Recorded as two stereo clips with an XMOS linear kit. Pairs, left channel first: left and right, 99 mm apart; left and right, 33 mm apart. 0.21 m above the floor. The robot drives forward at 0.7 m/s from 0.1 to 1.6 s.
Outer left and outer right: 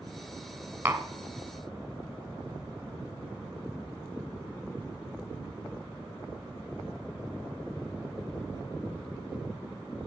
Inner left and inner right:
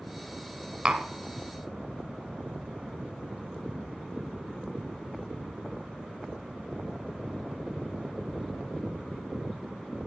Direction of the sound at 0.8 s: 20° right (ahead or behind).